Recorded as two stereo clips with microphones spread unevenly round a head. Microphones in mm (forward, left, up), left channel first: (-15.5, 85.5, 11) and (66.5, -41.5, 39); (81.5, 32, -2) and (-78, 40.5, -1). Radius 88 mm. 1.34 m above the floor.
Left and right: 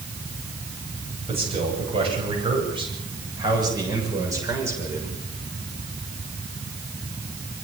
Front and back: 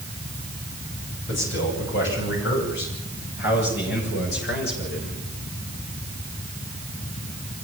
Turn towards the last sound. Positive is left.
turn(degrees=20)